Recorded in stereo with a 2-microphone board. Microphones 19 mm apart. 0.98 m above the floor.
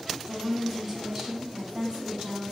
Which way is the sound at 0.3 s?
Centre (ahead or behind).